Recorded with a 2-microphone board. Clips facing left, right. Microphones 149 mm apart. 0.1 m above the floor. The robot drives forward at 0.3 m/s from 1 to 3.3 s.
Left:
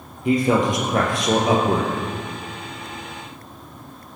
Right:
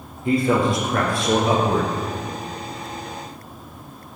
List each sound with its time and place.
0.2 s a man speaking: 20° left (ahead or behind), 3 m; by 1.9 s 25° left (ahead or behind), 2.5 m